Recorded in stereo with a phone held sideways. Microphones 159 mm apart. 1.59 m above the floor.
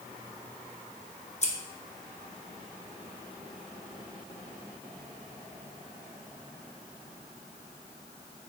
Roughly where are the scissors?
Left.